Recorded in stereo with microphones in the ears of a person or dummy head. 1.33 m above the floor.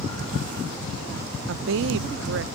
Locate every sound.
1.5 s a woman speaking: 70° right (ahead or behind)